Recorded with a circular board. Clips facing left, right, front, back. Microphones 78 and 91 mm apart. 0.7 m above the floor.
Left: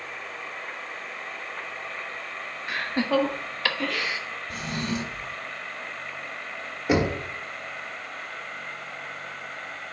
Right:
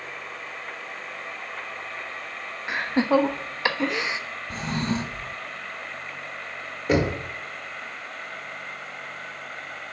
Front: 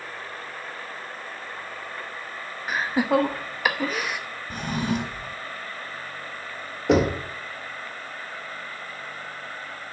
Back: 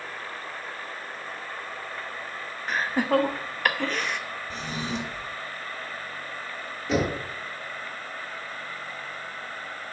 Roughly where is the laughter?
Right.